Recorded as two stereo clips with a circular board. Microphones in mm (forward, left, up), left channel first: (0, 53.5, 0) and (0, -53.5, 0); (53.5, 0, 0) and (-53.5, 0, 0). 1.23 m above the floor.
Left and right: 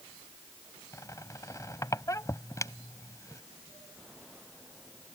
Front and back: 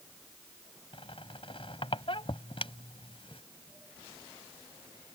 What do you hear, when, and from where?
0.9 s a squeak: 30° left